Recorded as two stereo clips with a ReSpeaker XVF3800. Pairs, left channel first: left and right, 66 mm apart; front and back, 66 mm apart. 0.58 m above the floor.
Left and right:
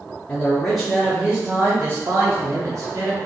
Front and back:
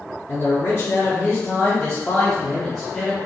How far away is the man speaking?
About 1.0 m.